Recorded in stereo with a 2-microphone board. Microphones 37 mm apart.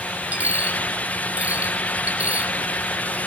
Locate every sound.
0.3 s a dropped coin: 45° right (ahead or behind), 1.7 m